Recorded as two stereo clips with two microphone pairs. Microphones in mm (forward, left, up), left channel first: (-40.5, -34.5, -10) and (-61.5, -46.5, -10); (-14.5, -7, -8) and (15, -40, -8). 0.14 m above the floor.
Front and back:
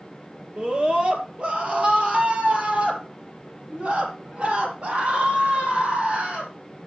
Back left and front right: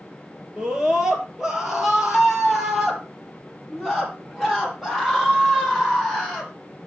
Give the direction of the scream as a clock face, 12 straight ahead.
4 o'clock.